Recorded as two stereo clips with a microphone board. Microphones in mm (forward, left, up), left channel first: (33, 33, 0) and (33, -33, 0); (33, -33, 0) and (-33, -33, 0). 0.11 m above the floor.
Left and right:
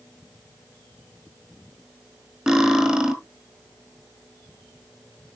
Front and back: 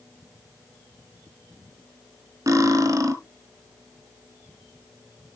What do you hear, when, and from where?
2.5 s cutlery clinking: 165° right, 1.3 m